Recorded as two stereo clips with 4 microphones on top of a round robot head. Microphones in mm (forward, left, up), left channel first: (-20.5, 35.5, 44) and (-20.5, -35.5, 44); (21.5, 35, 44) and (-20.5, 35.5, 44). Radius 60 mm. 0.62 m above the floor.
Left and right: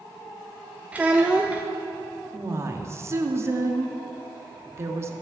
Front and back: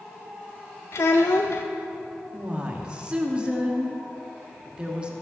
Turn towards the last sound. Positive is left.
turn(degrees=-120)